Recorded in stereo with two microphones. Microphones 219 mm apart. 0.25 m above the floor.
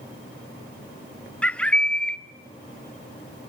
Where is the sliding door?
I don't hear a sliding door.